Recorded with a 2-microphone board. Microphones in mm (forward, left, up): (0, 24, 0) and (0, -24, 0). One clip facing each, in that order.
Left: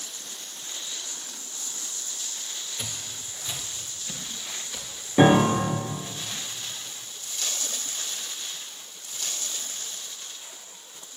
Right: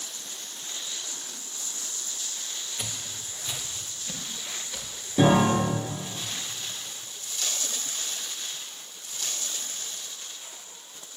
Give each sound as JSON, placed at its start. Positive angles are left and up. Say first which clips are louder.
{"t": 2.8, "sound": "footsteps", "louder": "even", "side_deg": -5, "distance_m": 2.0}
{"t": 5.2, "sound": "a piano", "louder": "left 2 dB", "side_deg": 35, "distance_m": 1.9}